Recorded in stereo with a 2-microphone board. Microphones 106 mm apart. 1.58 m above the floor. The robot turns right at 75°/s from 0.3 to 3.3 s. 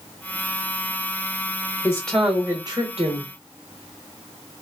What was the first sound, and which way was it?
A woman speaking, 155° left.